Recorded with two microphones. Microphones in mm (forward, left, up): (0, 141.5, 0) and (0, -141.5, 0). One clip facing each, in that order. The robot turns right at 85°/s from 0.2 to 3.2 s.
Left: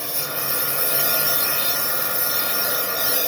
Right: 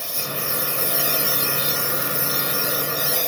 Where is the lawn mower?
115° left; by 3.3 s 10° left.